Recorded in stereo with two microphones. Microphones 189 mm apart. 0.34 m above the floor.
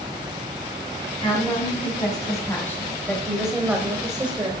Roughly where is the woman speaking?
Left.